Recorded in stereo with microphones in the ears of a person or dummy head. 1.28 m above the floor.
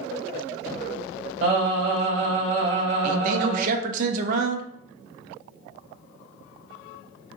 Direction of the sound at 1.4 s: 45° right (ahead or behind).